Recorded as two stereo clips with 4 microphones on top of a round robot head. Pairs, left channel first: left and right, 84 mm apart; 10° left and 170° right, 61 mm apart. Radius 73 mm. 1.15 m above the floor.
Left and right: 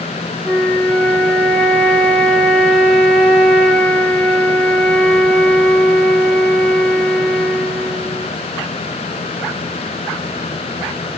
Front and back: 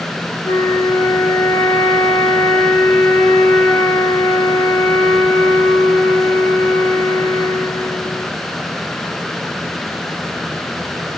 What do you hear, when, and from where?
0.4 s a flute: 20° left, 0.9 m